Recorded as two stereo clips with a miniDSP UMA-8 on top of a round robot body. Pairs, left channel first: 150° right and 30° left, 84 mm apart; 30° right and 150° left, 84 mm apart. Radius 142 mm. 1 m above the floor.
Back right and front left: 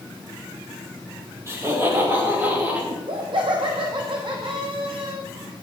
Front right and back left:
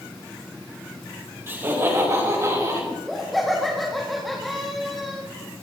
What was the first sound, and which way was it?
Laughter, 85° left.